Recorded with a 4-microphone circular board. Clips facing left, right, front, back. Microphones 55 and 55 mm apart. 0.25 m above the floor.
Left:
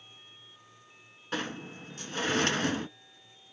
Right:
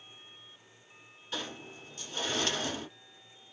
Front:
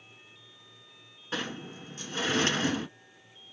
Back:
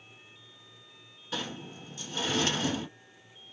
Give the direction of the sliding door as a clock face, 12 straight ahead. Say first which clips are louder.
Left 5 dB, front 2 dB; 10 o'clock.